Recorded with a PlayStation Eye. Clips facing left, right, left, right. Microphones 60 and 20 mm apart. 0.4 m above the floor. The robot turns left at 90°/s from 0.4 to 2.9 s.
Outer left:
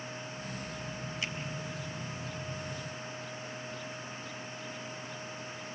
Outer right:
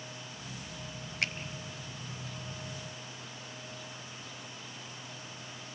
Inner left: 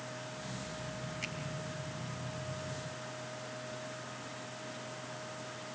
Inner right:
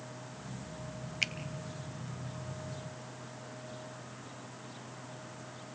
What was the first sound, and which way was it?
A finger snap, 60° right (ahead or behind).